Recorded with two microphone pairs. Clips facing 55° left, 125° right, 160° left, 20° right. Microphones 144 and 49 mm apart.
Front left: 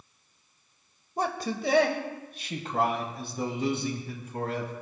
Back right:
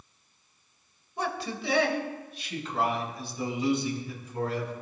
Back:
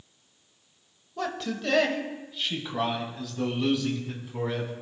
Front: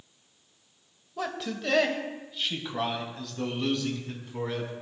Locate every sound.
1.2 s a man speaking: 70° left, 1.3 m; by 4.7 s 80° left, 3 m